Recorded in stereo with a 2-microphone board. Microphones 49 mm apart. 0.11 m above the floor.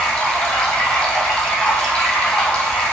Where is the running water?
15° left (ahead or behind), 2.5 m.